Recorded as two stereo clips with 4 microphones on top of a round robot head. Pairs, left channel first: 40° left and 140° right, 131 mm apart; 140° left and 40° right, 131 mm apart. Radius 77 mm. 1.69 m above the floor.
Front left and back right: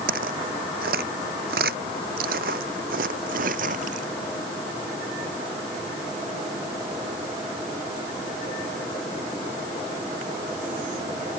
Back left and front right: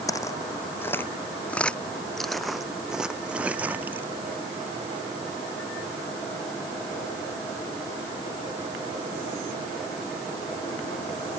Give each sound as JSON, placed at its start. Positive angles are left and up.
{"t": 0.1, "sound": "footsteps", "azimuth_deg": -155}